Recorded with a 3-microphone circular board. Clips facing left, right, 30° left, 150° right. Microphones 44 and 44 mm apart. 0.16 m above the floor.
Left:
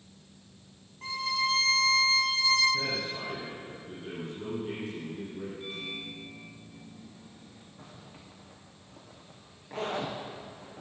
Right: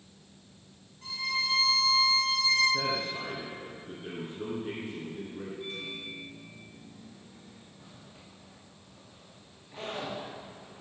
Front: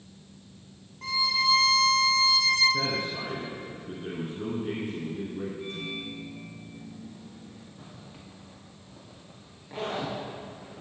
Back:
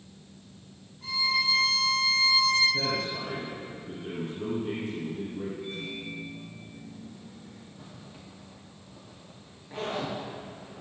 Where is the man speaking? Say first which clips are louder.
Right 1 dB, even; 30° right, 2.5 m.